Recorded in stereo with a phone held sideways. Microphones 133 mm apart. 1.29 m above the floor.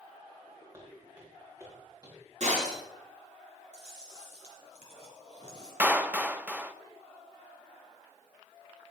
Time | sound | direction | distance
0.7 | footsteps | 25° right (ahead or behind) | 6 m
2.4 | breaking glass | 60° right (ahead or behind) | 8 m
3.7 | chewing | 55° right (ahead or behind) | 3.5 m
5.8 | a clap | 10° right (ahead or behind) | 0.7 m